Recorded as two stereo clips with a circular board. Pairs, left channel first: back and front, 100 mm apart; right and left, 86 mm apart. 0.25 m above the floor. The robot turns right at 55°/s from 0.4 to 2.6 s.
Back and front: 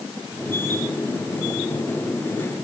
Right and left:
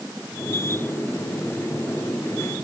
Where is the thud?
No thud in this recording.